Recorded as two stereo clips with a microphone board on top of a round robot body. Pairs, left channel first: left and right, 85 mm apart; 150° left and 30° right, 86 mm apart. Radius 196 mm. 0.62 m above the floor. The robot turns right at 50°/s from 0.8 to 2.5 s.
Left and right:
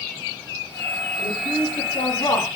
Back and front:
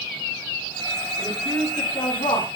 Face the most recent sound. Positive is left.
turn(degrees=140)